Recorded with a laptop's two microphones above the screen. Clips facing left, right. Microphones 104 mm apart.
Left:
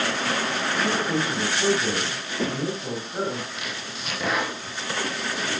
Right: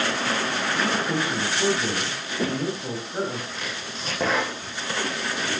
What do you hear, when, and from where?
0.7 s a man speaking: 10° right (ahead or behind), 6 m
3.5 s chopping: 35° right (ahead or behind), 8 m